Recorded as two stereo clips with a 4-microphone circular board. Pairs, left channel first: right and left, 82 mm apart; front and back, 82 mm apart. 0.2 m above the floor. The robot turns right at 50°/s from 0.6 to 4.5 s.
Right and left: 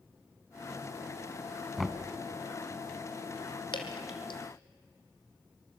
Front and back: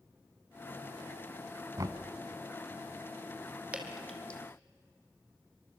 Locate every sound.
1.8 s knocking: straight behind, 1.4 m; by 2.0 s 170° right, 1.4 m
3.7 s dripping: 105° right, 2 m; by 4.4 s 70° right, 2 m